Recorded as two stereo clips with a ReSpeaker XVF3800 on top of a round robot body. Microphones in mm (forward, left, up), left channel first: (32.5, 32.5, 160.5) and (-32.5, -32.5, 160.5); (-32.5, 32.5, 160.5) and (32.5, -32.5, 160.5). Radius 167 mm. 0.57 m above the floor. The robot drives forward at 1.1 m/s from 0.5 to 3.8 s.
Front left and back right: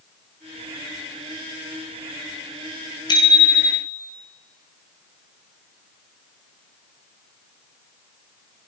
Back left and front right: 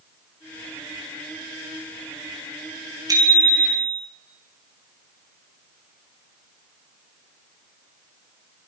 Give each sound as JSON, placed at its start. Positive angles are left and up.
{"t": 3.1, "sound": "a bicycle bell", "azimuth_deg": 5, "distance_m": 6.0}